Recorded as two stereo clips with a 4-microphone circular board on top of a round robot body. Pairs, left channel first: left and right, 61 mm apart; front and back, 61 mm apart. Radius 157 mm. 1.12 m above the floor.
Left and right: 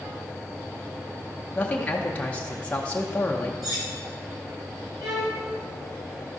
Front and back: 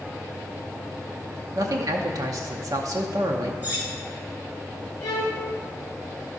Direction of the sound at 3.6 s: 115° right.